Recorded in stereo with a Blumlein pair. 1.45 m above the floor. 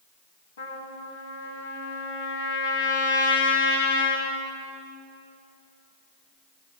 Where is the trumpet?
60° left, 2.5 m.